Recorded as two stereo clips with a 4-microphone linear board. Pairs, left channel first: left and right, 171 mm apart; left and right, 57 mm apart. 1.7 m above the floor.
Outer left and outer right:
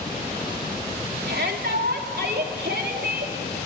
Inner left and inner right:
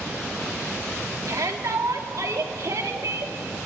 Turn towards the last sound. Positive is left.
turn(degrees=-70)  # may be behind; listen again after turning